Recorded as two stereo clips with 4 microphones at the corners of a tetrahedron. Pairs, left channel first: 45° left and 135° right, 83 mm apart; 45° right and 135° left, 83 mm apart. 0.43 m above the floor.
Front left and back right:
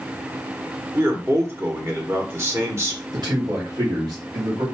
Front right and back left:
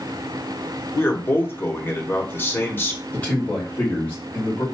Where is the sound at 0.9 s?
95° right, 1.4 m.